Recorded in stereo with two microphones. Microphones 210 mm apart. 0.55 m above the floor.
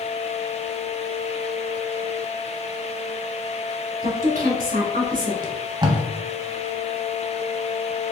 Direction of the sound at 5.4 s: 20° right (ahead or behind).